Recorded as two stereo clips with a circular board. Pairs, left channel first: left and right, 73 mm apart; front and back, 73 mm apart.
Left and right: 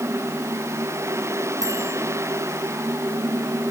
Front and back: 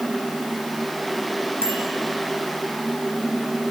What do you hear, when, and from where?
1.6 s a bicycle bell: 60° right, 5 m